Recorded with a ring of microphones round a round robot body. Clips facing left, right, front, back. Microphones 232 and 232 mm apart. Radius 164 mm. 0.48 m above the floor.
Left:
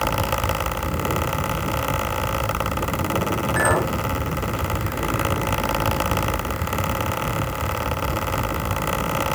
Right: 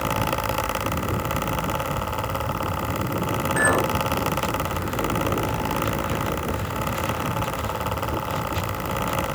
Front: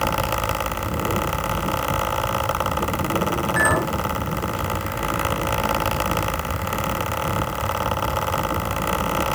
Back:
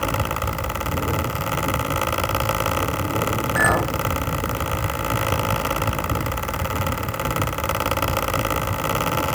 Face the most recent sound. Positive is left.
turn(degrees=-165)